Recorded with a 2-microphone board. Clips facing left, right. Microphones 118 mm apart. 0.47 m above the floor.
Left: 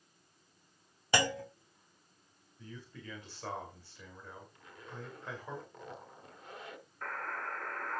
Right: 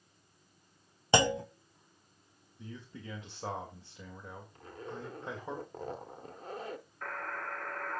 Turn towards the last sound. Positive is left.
turn(degrees=0)  # may be behind; listen again after turning